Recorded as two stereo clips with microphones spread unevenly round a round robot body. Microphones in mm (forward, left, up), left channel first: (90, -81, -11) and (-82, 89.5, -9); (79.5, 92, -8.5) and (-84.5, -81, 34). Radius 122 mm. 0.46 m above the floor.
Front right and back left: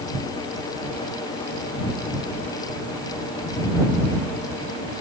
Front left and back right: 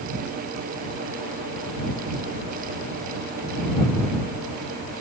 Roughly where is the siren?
No siren in this recording.